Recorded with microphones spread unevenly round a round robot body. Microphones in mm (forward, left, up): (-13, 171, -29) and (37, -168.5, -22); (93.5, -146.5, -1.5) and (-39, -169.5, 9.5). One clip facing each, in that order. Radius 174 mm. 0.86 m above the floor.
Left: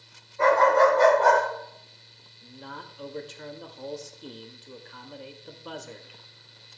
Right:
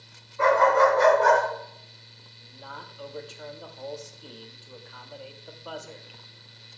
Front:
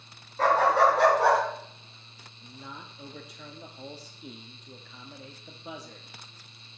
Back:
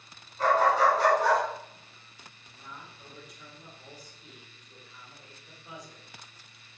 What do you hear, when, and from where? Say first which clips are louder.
0.4 s a dog barking: left 1 dB, front 2 dB; 5° right, 4.5 m; by 1.4 s 10° right, 5 m
2.4 s a man speaking: left 4 dB, front 4 dB; 35° left, 1.1 m